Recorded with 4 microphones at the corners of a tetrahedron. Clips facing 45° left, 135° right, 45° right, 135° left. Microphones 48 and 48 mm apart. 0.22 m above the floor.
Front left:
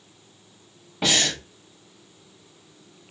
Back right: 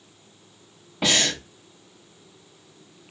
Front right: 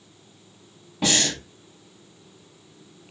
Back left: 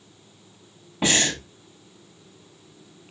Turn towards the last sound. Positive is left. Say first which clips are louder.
# even, back left 1 dB
turn(degrees=140)